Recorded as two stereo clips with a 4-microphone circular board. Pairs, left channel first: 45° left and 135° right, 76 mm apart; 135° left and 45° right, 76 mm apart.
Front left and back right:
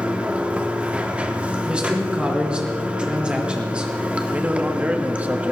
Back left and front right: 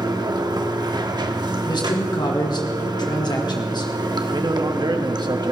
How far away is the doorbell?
I don't hear a doorbell.